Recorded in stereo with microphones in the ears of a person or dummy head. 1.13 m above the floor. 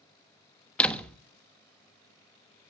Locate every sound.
0.8 s a door slam: 5° left (ahead or behind), 1.2 m